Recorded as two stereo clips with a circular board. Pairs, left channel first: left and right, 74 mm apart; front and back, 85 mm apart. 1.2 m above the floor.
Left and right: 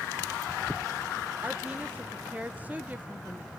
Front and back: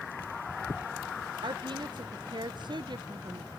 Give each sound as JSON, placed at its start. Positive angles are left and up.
{"t": 1.4, "sound": "a woman speaking", "azimuth_deg": -155, "distance_m": 0.6}